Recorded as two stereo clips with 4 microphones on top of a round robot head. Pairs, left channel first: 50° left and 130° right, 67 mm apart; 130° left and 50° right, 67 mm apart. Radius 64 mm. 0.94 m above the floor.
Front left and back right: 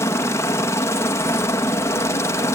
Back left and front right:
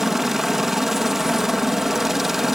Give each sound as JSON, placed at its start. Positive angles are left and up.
{"t": 0.0, "sound": "a helicopter", "azimuth_deg": 35}